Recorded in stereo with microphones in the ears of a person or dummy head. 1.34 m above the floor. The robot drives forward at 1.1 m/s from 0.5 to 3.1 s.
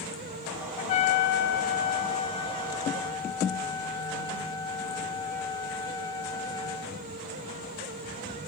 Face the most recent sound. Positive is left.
turn(degrees=10)  # may be behind; listen again after turning